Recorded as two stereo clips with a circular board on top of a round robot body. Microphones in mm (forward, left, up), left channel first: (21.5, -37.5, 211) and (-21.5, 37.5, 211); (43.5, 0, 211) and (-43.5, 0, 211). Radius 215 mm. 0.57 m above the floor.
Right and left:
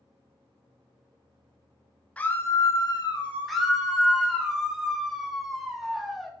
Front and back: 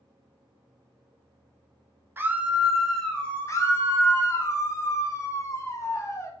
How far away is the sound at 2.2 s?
About 0.7 m.